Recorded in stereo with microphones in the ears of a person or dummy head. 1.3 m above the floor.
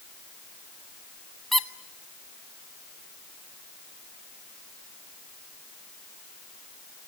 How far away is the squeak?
About 0.7 m.